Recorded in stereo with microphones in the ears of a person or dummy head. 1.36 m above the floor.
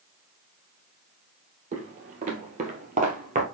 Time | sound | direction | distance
1.7 | footsteps | 40° right (ahead or behind) | 1.8 m